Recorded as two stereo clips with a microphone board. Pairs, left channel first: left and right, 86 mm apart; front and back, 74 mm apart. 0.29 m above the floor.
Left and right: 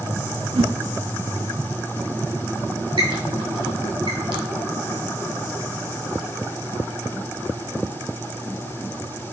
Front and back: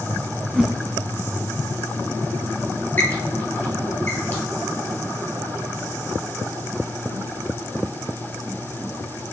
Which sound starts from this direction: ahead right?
A squeak, at 3.0 s.